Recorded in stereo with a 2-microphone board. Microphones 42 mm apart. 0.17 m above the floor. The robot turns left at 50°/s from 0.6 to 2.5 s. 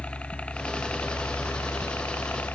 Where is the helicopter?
145° left; by 2.5 s 50° left.